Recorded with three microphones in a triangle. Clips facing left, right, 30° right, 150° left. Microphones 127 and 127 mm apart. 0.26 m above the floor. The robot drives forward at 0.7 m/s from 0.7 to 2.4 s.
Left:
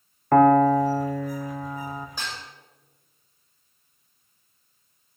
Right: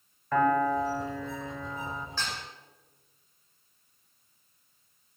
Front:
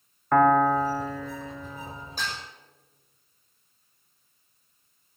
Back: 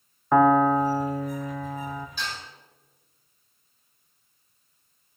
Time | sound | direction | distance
0.3 | a piano | 75° left | 0.7 m
2.2 | dishes clattering | 15° left | 7.5 m